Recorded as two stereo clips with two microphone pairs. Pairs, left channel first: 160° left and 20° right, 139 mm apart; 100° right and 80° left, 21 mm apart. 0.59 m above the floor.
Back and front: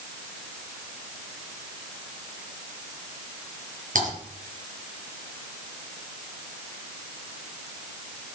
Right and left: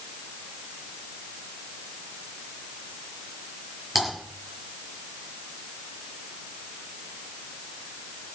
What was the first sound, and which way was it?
Typing on a keyboard, straight ahead.